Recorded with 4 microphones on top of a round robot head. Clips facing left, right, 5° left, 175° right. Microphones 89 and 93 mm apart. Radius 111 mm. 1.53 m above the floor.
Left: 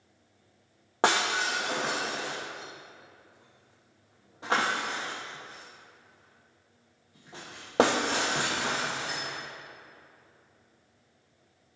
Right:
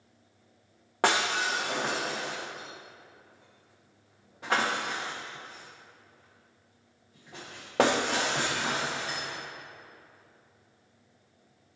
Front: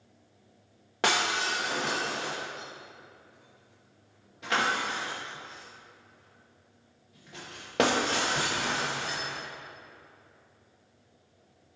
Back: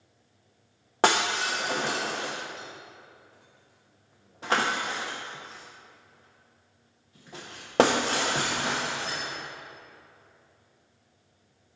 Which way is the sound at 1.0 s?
160° left.